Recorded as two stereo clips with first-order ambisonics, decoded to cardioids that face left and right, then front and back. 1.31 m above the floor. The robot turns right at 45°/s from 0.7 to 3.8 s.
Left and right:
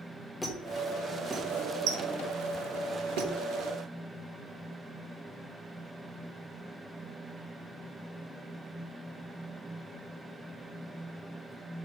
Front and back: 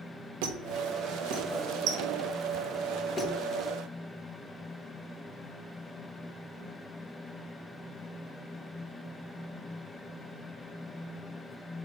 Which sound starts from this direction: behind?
A squeak, at 0.4 s.